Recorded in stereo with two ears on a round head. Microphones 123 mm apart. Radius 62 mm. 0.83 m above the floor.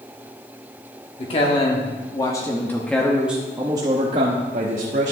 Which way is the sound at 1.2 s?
45° left (ahead or behind).